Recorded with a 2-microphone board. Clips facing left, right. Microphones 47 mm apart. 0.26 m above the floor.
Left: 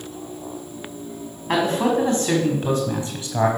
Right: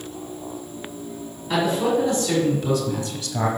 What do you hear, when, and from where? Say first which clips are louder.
1.5 s a man speaking: left 1 dB; 55° left (ahead or behind), 1.9 m; by 3.5 s 25° left (ahead or behind), 1.5 m